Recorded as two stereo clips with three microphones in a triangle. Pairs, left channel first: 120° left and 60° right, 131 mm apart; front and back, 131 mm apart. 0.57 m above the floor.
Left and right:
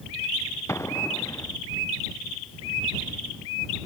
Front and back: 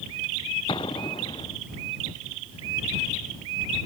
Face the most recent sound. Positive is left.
turn(degrees=50)